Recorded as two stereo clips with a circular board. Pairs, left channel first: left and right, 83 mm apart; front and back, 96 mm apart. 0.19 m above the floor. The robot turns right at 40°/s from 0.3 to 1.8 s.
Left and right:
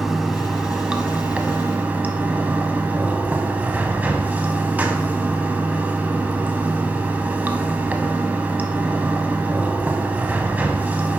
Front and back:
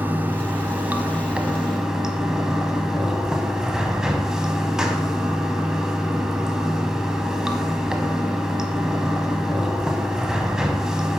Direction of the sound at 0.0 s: 170° right.